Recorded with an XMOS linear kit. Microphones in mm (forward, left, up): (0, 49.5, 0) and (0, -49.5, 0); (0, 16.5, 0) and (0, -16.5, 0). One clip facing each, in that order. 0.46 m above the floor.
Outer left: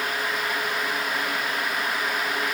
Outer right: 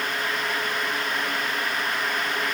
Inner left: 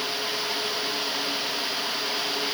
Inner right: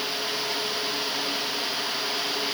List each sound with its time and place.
Only background noise.